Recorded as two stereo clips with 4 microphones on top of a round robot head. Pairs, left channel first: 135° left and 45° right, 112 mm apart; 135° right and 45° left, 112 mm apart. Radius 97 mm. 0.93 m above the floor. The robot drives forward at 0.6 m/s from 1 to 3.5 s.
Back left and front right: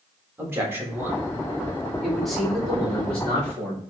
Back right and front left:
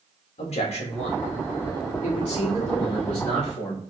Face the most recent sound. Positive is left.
turn(degrees=-150)